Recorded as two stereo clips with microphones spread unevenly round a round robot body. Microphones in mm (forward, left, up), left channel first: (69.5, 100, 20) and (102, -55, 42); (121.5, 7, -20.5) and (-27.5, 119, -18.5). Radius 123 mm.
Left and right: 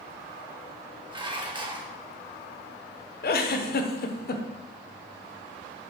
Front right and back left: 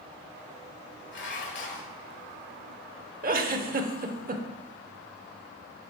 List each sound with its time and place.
1.1 s dishes clattering: 15° right, 1.6 m
3.2 s a giggle: 100° left, 0.9 m